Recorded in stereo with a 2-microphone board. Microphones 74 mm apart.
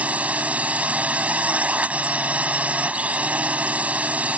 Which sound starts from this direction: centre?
A drone, at 0.0 s.